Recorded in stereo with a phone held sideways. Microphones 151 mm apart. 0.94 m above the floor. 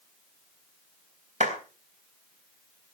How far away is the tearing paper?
No tearing paper in this recording.